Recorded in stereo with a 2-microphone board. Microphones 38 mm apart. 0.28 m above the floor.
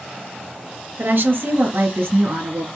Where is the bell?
I don't hear a bell.